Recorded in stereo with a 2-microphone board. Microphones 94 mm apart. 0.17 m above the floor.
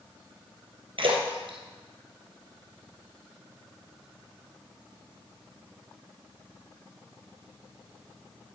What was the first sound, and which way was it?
A splash, 65° right (ahead or behind).